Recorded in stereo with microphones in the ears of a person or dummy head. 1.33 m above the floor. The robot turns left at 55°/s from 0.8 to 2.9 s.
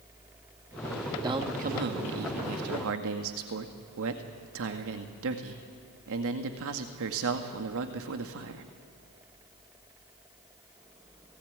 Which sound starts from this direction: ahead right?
A man speaking, at 1.2 s.